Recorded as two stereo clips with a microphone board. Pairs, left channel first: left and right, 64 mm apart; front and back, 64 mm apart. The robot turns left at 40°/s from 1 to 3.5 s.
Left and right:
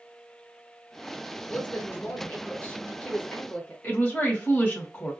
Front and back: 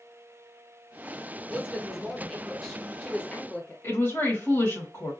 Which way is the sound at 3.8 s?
35° left.